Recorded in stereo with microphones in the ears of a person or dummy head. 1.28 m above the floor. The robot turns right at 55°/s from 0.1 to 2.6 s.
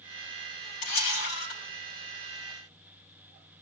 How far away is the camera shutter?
About 4 m.